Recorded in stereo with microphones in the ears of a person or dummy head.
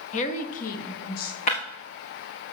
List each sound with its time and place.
0.1 s a woman speaking: 35° left (ahead or behind), 1.2 m; by 1.4 s 45° left (ahead or behind), 2.5 m
1.5 s breaking glass: 35° left (ahead or behind), 4.5 m